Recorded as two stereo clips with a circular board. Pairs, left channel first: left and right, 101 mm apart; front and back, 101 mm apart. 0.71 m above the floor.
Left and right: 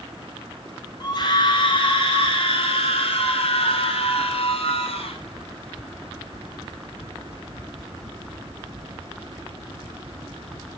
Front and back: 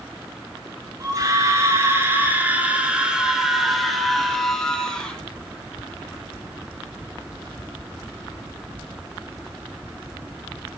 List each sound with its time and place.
1.0 s a scream: 130° left, 2 m; by 5.2 s 80° left, 3.5 m